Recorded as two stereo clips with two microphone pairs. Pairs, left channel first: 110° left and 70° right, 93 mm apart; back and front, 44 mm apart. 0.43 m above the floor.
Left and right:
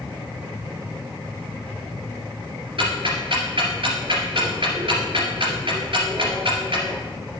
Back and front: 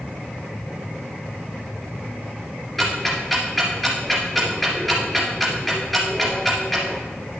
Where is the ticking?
95° right, 2 m.